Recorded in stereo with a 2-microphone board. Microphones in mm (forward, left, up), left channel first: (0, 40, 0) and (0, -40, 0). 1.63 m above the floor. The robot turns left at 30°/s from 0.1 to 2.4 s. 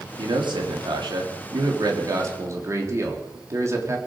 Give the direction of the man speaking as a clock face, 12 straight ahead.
3 o'clock.